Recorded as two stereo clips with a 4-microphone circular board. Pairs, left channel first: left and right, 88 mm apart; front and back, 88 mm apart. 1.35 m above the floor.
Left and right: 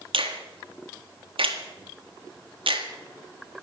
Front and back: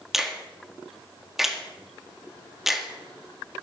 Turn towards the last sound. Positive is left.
turn(degrees=-95)